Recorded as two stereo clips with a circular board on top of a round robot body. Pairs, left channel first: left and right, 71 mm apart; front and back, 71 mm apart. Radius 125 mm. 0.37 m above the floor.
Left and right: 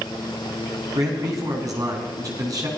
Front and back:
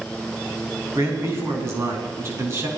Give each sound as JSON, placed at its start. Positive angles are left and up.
{"t": 0.9, "sound": "a man speaking", "azimuth_deg": -130, "distance_m": 6.0}